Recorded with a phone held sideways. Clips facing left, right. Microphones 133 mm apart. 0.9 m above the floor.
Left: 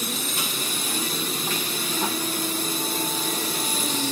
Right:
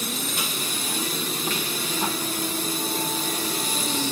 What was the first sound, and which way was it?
Only background noise.